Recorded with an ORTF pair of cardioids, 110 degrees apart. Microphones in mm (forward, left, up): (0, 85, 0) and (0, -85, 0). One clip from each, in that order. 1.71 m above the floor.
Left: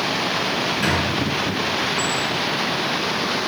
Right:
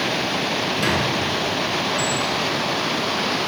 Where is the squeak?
30° right, 1.9 m.